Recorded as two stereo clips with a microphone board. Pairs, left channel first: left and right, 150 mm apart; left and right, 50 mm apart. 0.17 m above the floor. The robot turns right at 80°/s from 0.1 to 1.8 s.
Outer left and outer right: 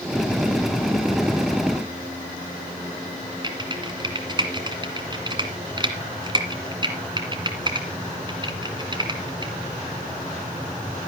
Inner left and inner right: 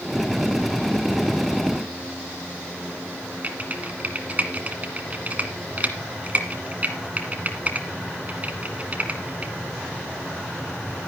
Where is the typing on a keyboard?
30° right (ahead or behind), 1.8 m.